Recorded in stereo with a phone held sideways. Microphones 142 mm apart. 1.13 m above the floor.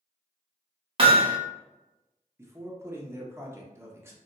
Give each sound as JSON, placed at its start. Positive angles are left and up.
{"t": 1.0, "sound": "hammering", "side_deg": -40, "distance_m": 0.7}
{"t": 2.4, "sound": "a man speaking", "side_deg": -20, "distance_m": 0.7}